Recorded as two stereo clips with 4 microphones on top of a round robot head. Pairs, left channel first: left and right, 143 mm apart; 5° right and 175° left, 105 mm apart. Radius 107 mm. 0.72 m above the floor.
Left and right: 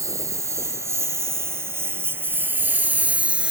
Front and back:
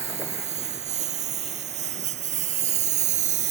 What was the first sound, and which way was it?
A lawn mower, 160° right.